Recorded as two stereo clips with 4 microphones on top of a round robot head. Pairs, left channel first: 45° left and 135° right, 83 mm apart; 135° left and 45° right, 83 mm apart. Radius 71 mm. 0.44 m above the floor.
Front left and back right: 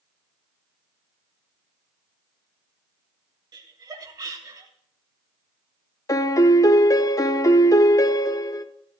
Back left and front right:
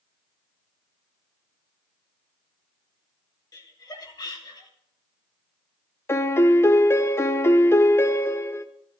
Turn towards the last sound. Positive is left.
turn(degrees=80)